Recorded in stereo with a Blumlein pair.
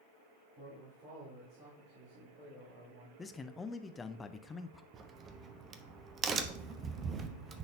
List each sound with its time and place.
0.6 s a man speaking: 25° right, 3 m; by 3.1 s 50° right, 3.5 m
3.2 s a man speaking: 15° left, 0.6 m
4.9 s a crack: 25° right, 0.6 m